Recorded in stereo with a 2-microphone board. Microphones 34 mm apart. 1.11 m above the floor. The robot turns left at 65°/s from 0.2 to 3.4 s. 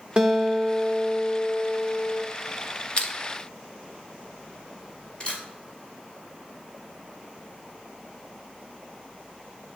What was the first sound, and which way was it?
A guitar, 135° right.